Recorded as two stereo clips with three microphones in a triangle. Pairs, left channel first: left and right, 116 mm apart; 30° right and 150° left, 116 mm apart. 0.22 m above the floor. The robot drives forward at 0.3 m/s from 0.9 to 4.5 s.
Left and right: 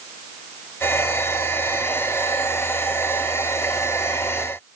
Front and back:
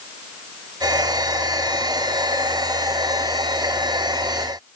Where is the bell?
I don't hear a bell.